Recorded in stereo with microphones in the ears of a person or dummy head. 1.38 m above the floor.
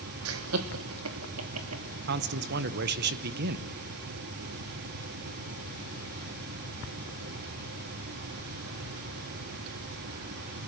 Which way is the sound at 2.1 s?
60° right (ahead or behind).